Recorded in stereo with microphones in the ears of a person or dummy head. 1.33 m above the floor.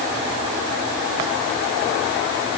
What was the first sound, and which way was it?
Only background noise.